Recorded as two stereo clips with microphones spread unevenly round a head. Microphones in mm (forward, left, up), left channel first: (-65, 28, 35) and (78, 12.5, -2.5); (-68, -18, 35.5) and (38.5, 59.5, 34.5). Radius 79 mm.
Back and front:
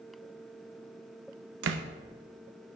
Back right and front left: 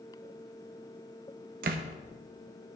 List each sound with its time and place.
1.6 s a door slam: straight ahead, 0.7 m